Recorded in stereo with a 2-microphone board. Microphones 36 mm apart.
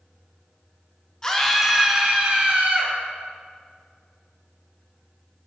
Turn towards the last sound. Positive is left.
turn(degrees=-45)  # may be behind; listen again after turning